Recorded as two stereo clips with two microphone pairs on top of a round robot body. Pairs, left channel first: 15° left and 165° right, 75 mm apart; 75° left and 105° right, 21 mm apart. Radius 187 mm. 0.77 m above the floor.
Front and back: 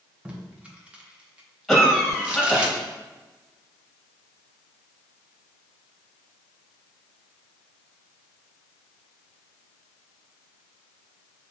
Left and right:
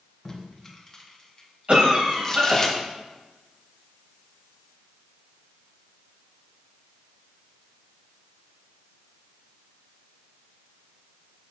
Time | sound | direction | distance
0.2 | tape being pulled | 145° left | 1.2 m
1.7 | a cough | 75° right | 1.7 m